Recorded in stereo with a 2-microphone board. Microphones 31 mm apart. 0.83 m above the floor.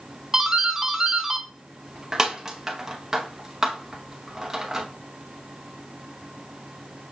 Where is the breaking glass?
I don't hear breaking glass.